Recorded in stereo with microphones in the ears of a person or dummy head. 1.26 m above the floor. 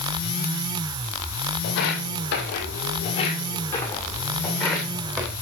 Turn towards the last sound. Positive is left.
turn(degrees=-20)  # may be behind; listen again after turning